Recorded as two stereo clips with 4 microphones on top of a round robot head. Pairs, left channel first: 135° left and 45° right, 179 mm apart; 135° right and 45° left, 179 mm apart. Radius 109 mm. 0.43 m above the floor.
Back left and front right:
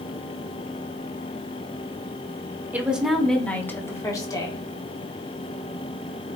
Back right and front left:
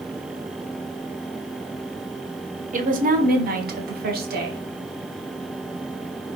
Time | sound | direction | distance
2.7 | a woman speaking | 30° left | 1.3 m